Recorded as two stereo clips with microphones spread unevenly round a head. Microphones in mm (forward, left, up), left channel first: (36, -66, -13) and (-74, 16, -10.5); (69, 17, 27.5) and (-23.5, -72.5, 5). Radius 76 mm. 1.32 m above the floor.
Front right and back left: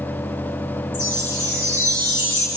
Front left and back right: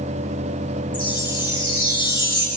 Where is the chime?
5° right, 6 m.